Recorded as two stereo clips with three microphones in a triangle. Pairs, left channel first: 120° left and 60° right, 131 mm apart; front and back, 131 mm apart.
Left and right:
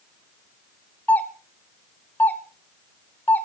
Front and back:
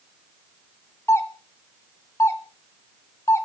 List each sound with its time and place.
1.1 s a doorbell: 55° left, 1.7 m